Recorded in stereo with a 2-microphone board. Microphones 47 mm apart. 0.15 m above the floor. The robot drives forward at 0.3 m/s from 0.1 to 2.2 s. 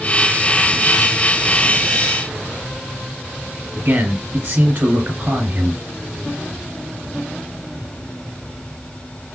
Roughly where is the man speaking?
Right.